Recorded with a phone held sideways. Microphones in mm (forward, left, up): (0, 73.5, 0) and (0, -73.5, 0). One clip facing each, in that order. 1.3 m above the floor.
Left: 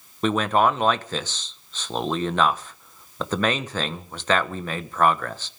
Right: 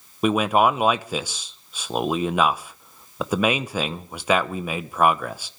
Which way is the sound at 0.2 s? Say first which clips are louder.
Right 1 dB; 10° right (ahead or behind).